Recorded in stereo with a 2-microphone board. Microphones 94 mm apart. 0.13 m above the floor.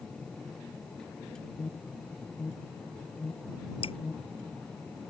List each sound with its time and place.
1.6 s an alarm: 25° left (ahead or behind)
3.8 s dripping: 75° left (ahead or behind)